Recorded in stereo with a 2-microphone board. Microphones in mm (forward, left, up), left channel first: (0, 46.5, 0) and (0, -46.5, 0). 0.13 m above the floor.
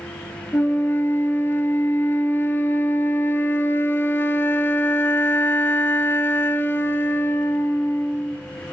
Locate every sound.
0.5 s a flute: 25° left (ahead or behind), 0.5 m